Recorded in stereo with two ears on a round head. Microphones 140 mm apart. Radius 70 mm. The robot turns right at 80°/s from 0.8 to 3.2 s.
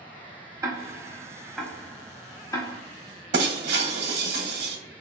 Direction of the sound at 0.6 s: 20° right (ahead or behind).